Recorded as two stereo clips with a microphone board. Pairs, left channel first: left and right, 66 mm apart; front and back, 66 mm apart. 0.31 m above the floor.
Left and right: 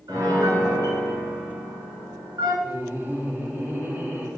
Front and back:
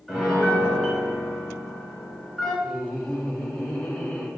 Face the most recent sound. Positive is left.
turn(degrees=-70)